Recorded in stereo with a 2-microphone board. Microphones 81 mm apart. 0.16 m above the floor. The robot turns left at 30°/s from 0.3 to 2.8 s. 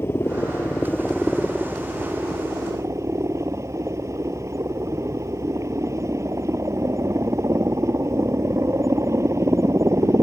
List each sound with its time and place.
0.0 s a helicopter: 35° left; by 10.2 s 40° right